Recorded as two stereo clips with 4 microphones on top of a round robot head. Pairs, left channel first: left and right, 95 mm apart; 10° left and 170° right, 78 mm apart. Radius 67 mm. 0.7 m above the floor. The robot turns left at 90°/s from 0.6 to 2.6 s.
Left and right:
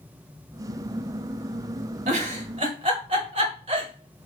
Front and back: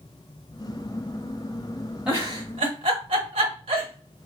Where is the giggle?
90° right, 0.9 m; by 4.3 s 140° right, 0.9 m.